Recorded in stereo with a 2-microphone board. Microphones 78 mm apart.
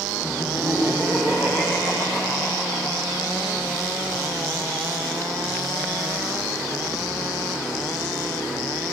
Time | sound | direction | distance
0.2 | laughter | 40° right (ahead or behind) | 2.0 m